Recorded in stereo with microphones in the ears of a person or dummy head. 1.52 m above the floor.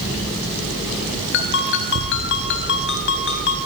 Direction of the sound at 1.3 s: 65° left (ahead or behind).